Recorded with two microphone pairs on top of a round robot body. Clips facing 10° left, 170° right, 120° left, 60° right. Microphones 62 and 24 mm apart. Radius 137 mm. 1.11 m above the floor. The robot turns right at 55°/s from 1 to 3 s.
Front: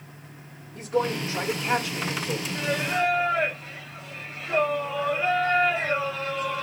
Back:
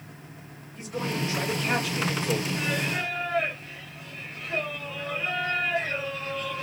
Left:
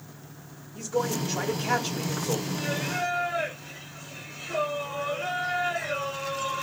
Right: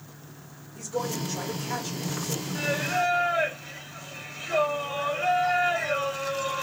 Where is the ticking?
I don't hear ticking.